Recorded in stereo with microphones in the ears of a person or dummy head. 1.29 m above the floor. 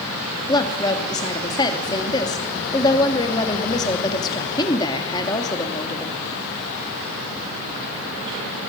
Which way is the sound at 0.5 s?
20° left (ahead or behind).